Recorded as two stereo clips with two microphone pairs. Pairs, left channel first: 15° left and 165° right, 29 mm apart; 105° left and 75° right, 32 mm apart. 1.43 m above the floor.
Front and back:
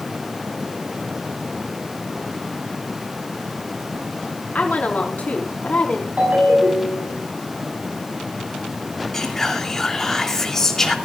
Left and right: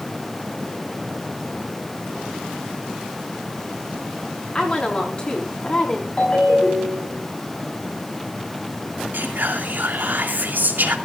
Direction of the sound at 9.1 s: 60° right.